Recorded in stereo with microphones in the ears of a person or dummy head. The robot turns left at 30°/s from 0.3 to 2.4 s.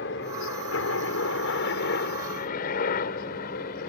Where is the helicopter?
65° left (ahead or behind); by 3.9 s 55° left (ahead or behind).